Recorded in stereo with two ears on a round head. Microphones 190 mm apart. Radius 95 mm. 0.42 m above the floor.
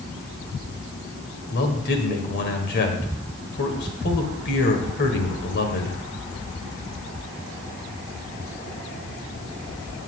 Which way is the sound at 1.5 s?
50° left (ahead or behind).